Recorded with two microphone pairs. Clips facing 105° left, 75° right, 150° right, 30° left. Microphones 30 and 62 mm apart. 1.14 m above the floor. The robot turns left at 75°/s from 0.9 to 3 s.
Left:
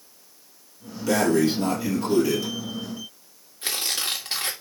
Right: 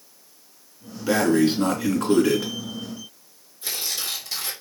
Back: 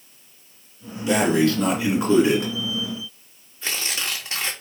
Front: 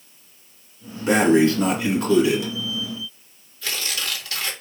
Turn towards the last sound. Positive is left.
turn(degrees=145)